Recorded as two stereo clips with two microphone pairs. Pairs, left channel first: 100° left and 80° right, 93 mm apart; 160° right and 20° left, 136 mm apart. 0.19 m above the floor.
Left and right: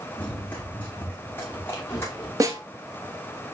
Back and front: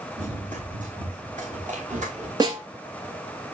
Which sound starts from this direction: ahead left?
Running footsteps, at 0.2 s.